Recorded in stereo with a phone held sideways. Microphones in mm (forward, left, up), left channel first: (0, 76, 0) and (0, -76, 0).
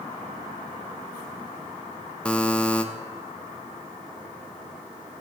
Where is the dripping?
No dripping in this recording.